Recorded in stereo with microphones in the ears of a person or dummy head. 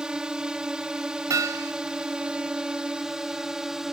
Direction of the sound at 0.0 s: 5° right (ahead or behind).